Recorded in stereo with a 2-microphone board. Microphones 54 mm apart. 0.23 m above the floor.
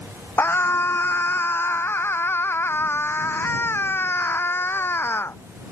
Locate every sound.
0.4 s a scream: 45° left (ahead or behind)